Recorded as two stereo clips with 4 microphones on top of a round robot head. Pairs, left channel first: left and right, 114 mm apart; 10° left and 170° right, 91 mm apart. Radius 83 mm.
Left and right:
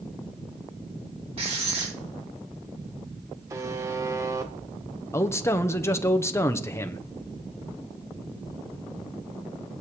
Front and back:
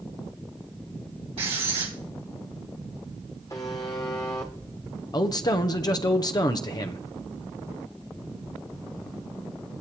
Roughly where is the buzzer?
Ahead right.